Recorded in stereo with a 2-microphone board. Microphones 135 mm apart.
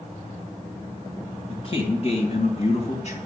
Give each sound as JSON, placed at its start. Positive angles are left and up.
{"t": 1.5, "sound": "a man speaking", "side_deg": 50, "distance_m": 2.5}